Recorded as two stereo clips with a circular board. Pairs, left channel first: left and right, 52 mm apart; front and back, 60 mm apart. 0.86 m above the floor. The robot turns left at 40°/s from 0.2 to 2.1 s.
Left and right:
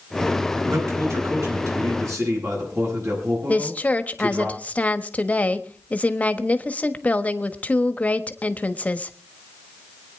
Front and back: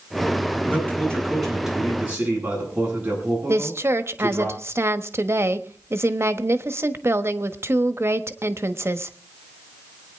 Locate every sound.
0.7 s a man speaking: 55° right, 9.5 m; by 4.5 s 115° right, 9.5 m
3.5 s a woman speaking: 145° left, 1.2 m